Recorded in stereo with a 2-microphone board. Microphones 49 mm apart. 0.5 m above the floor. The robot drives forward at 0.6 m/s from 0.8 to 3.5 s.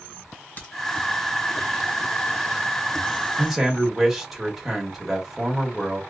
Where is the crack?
40° left (ahead or behind), 1.8 m.